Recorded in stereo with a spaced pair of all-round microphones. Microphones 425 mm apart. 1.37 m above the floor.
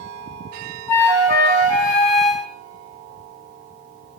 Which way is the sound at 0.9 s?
80° left.